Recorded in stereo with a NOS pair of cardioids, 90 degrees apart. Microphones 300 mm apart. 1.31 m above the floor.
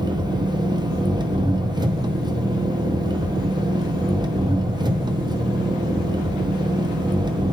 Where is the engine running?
15° right, 0.7 m.